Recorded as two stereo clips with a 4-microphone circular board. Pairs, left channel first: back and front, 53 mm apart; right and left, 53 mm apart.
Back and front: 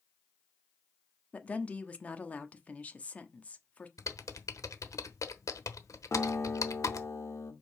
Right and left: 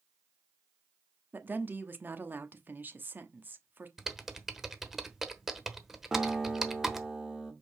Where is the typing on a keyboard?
175° left, 1.0 m.